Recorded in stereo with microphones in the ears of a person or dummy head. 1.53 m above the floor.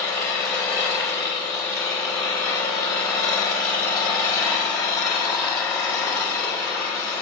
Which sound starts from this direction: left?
An engine running, at 0.0 s.